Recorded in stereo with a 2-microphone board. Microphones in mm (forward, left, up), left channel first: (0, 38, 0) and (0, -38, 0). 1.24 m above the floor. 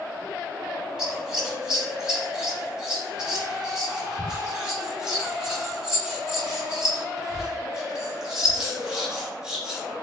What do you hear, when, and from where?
1.0 s scissors: 10° right (ahead or behind), 5.5 m